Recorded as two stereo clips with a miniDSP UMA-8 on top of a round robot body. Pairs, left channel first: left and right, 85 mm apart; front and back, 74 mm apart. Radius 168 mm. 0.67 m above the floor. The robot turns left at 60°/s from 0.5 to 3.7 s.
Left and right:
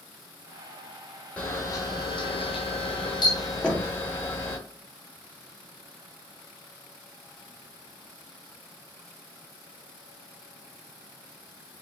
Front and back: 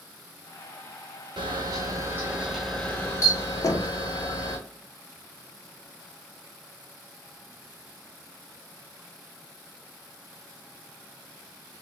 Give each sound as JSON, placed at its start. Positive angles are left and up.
{"t": 1.4, "sound": "a camera shutter", "azimuth_deg": 165, "distance_m": 1.0}
{"t": 3.6, "sound": "knocking", "azimuth_deg": 15, "distance_m": 1.2}